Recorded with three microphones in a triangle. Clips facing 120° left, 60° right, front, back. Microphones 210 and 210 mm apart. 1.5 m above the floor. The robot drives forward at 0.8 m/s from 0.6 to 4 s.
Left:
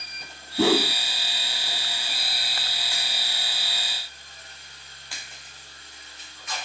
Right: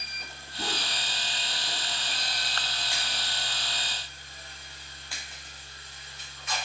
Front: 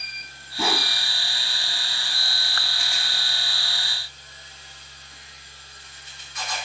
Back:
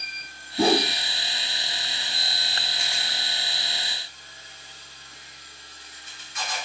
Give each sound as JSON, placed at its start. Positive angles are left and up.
{"t": 0.6, "sound": "a whoosh", "azimuth_deg": 125}